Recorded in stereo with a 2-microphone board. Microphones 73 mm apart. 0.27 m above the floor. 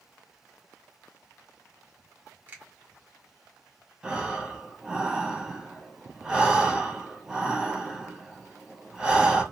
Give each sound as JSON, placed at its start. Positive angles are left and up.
{"t": 2.5, "sound": "a finger snap", "side_deg": -30, "distance_m": 1.3}
{"t": 4.0, "sound": "breathing", "side_deg": -15, "distance_m": 1.1}